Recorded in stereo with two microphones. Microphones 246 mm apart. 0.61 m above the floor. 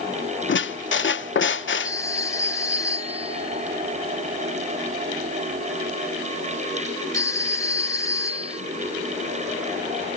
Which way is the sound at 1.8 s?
15° left (ahead or behind).